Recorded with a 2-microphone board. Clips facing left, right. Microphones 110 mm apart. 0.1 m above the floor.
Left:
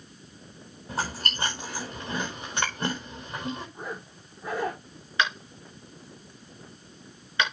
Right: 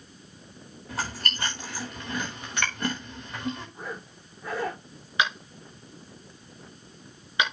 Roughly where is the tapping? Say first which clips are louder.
Even; centre.